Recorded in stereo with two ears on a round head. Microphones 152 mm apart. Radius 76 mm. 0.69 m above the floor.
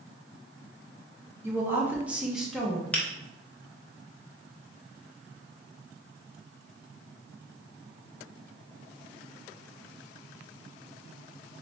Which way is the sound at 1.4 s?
15° right (ahead or behind).